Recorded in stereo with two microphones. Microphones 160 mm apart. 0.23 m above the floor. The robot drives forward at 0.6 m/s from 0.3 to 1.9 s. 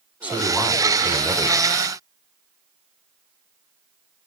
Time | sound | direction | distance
0.2 | a man speaking | 10° right (ahead or behind) | 1.4 m